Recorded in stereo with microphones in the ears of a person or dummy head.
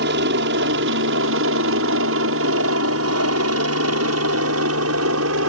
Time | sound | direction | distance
0.0 | a helicopter | 60° right (ahead or behind) | ?